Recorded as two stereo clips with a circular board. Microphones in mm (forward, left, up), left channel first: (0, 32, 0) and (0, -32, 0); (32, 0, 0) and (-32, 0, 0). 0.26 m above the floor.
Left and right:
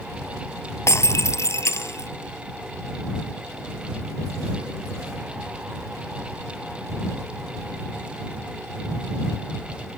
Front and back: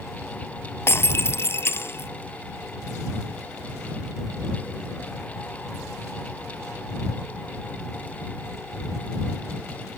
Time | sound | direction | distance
0.9 | breaking glass | 45° left | ?